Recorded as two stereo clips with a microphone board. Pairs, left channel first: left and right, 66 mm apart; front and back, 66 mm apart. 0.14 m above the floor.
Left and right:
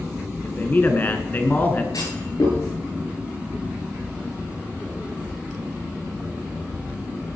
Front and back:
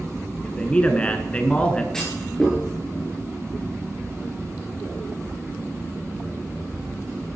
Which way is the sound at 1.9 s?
85° left.